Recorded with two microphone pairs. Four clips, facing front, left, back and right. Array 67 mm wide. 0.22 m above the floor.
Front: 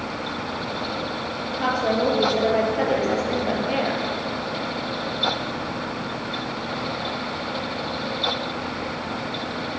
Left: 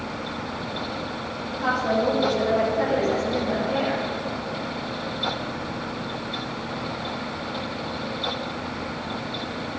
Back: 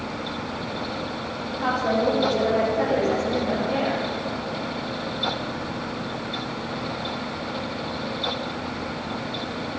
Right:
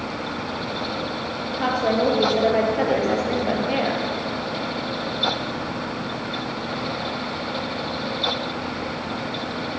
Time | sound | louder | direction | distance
1.6 | a woman speaking | right 2 dB, front 1 dB | 60° right | 4.5 m